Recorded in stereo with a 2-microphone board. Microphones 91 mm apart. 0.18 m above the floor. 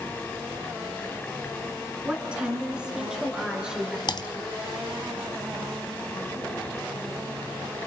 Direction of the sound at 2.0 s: 10° right (ahead or behind).